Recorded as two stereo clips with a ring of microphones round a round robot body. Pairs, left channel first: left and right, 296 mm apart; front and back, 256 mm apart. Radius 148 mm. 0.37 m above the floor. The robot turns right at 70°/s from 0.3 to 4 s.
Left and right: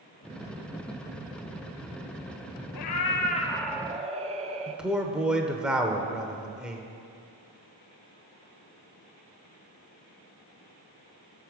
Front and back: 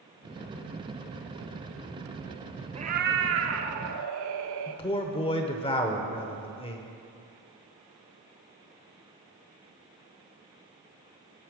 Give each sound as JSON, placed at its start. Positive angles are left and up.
{"t": 2.8, "sound": "a cat meowing", "azimuth_deg": 115, "distance_m": 0.8}
{"t": 4.7, "sound": "a man speaking", "azimuth_deg": -10, "distance_m": 0.8}